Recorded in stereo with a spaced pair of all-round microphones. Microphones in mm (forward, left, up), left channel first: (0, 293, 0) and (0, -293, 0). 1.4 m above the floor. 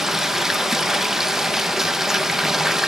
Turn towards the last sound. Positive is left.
turn(degrees=0)  # may be behind; listen again after turning